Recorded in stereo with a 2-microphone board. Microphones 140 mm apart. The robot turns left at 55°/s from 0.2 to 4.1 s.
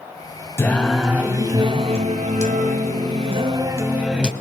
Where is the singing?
20° left, 1.3 m; by 4.3 s 175° right, 1.3 m.